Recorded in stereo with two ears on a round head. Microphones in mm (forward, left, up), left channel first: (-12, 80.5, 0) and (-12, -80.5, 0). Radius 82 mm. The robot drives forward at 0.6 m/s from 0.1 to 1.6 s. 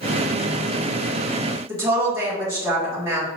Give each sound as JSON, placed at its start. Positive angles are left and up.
{"t": 1.7, "sound": "a woman speaking", "side_deg": -15, "distance_m": 1.7}